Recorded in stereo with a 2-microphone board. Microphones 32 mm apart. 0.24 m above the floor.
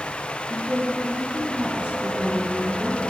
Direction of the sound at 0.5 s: 35° right (ahead or behind).